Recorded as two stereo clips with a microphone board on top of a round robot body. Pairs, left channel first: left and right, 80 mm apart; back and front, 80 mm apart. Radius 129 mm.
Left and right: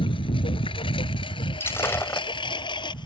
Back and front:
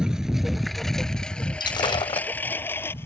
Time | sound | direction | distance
0.0 | a lawn mower | 80° left | ?
1.6 | breaking glass | 150° left | ?